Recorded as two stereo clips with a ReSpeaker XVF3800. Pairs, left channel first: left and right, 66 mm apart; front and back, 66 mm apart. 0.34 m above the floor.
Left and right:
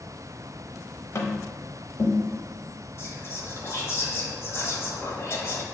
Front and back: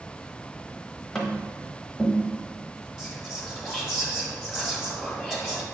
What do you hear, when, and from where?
1.1 s tapping: 85° left, 0.8 m
3.0 s whispering: 100° left, 1.3 m